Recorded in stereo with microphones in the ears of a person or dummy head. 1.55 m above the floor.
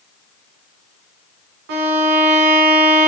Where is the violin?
55° right (ahead or behind), 2.5 m.